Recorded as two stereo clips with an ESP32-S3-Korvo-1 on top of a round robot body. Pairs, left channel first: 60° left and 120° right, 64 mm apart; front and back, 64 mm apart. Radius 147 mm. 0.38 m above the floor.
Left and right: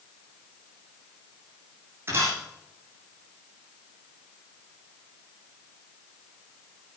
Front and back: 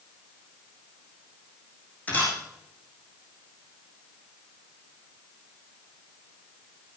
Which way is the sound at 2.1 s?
65° right.